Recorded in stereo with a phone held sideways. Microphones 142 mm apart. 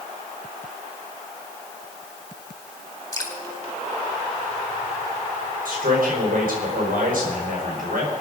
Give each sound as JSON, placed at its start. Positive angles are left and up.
{"t": 3.1, "sound": "dripping", "side_deg": 20, "distance_m": 3.0}
{"t": 5.7, "sound": "a man speaking", "side_deg": -80, "distance_m": 5.0}